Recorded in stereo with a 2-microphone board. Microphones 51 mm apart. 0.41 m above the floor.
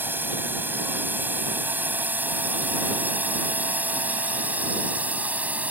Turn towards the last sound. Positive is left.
turn(degrees=-30)  # may be behind; listen again after turning